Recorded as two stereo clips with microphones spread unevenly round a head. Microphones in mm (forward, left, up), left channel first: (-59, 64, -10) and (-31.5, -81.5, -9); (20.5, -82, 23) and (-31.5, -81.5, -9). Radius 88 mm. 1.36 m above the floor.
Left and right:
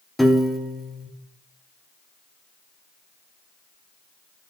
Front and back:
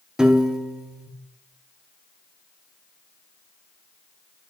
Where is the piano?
10° left, 1.0 m.